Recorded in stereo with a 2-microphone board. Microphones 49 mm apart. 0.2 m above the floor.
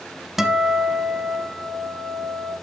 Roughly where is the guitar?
Centre.